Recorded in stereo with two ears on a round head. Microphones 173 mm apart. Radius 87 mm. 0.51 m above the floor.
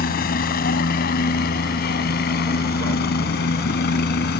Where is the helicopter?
50° left (ahead or behind); by 4.4 s 55° left (ahead or behind).